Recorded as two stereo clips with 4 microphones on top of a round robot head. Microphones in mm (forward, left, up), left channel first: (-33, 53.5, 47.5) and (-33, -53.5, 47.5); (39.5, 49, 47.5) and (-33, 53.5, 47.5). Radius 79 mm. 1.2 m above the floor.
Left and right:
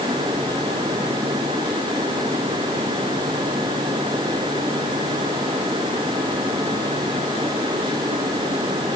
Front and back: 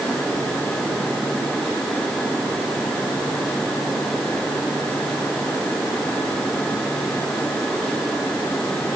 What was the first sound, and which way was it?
Only background noise.